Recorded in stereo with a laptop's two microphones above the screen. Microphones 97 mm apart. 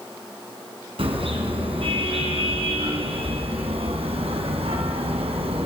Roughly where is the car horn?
Right.